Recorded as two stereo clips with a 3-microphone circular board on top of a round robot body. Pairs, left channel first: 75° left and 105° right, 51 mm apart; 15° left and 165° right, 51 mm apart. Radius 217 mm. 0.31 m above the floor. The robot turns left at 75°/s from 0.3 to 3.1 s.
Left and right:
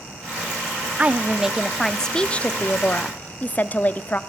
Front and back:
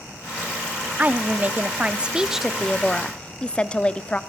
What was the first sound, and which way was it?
A woman speaking, 140° right.